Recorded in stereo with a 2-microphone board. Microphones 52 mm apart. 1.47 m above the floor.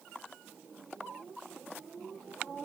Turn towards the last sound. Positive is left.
No sound to turn to.